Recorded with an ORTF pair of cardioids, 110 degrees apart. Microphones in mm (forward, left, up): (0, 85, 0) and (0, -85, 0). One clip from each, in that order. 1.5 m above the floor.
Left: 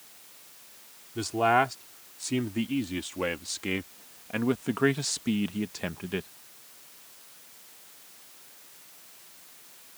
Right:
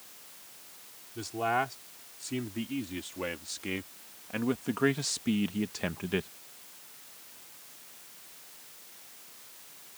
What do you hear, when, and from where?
1.1 s a man speaking: 45° left; by 6.3 s 10° right